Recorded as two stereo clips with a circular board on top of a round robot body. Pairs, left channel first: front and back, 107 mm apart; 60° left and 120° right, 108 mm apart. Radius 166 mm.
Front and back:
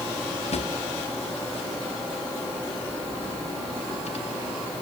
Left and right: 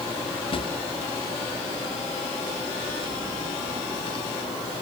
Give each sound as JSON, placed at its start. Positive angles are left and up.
{"t": 0.5, "sound": "a drawer", "azimuth_deg": 20, "distance_m": 1.1}